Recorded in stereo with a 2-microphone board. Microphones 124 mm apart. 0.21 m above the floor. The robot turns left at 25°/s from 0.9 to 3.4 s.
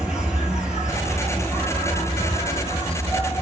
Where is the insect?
175° right, 0.9 m; by 3.4 s 125° left, 0.9 m.